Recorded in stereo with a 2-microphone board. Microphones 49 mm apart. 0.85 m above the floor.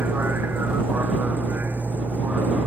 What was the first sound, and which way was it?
A vehicle, 45° right (ahead or behind).